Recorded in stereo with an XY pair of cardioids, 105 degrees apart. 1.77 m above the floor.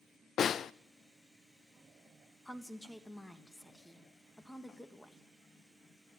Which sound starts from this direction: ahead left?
A snare drum, at 0.4 s.